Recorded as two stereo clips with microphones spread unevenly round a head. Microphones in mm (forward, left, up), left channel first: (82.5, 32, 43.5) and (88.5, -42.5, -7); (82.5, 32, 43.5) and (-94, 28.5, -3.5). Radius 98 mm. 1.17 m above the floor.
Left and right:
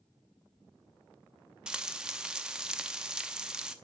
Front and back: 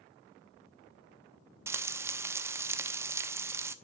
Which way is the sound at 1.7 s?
90° left.